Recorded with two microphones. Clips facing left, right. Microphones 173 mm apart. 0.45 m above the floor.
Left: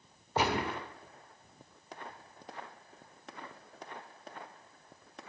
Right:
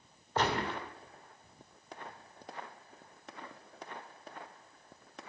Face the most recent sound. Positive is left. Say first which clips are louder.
# left 1 dB
turn(degrees=10)  # may be behind; listen again after turning